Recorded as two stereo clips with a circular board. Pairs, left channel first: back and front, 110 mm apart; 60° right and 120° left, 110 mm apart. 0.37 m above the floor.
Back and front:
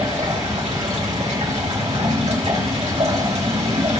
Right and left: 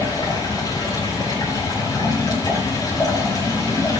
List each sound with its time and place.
0.0 s running water: 5° right, 5 m